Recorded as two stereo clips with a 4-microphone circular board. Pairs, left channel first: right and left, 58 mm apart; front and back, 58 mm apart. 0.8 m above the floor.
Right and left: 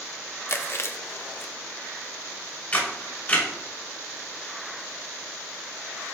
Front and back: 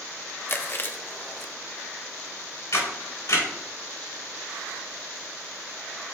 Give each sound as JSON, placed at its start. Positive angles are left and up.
{"t": 0.5, "sound": "chewing", "azimuth_deg": -50, "distance_m": 0.7}
{"t": 2.7, "sound": "a camera shutter", "azimuth_deg": -30, "distance_m": 3.0}